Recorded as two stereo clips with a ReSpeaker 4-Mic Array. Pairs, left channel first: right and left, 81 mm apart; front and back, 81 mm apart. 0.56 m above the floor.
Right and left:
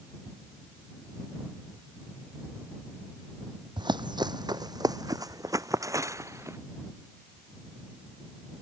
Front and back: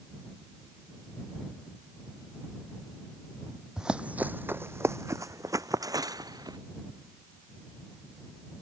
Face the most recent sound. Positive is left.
turn(degrees=145)